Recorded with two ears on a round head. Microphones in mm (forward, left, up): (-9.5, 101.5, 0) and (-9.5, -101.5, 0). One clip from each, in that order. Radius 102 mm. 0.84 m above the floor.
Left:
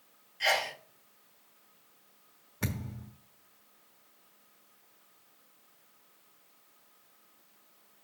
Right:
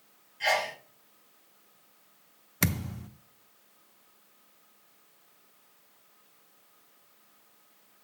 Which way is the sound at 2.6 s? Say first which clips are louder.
Right 7 dB; 80° right.